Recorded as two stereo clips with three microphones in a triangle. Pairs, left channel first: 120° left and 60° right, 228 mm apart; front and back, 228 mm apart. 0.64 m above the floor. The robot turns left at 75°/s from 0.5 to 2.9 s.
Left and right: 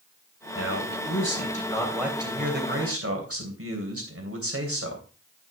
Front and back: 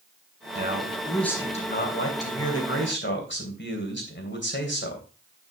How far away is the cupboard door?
I don't hear a cupboard door.